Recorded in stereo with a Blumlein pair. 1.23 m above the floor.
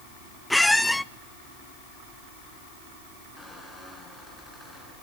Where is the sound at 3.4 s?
5° left, 5.5 m.